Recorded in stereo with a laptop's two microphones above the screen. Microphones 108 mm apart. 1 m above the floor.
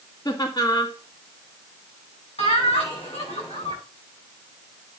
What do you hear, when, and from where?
0.2 s laughter: 35° left (ahead or behind), 2 m
2.4 s laughter: 80° left, 7 m